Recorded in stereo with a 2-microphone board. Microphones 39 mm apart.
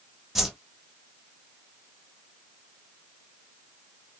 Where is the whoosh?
10° right (ahead or behind), 0.8 m.